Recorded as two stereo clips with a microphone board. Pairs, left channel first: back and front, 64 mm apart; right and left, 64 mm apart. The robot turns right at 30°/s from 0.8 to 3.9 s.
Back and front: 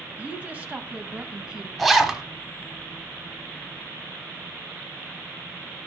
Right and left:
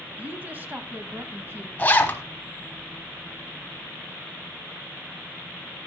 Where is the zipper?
90° right, 1.0 m; by 2.2 s 80° right, 1.0 m.